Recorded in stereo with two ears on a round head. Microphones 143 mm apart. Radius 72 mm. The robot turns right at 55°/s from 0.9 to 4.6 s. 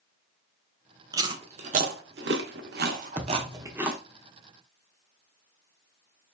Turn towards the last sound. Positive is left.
turn(degrees=65)